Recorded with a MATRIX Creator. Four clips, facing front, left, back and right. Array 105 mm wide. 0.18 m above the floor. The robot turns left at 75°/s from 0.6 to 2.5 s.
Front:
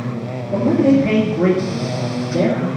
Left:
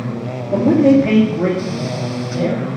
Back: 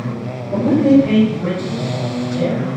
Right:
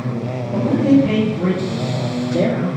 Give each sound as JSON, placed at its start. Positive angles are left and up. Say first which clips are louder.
{"t": 0.5, "sound": "a man speaking", "louder": "left 3 dB, back 2 dB", "azimuth_deg": 95, "distance_m": 3.0}